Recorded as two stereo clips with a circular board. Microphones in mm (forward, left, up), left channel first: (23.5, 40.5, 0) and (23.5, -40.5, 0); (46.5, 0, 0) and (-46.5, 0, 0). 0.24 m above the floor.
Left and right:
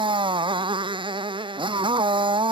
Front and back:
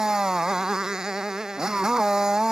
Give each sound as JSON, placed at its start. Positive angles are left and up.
{"t": 0.0, "sound": "a motorcycle", "azimuth_deg": -100}